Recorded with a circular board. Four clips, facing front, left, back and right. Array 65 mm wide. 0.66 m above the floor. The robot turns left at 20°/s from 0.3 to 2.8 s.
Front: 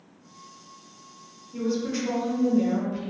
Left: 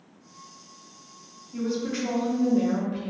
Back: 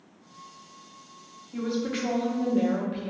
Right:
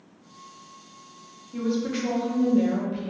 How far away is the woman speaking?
About 0.9 m.